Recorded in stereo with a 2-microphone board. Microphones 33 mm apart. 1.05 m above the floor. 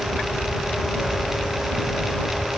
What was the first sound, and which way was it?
Only background noise.